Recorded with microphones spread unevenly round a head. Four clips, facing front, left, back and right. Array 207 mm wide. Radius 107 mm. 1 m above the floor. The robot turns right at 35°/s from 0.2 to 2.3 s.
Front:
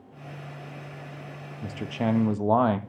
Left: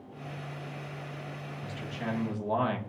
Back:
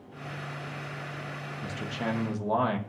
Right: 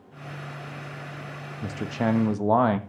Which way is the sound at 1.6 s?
75° right.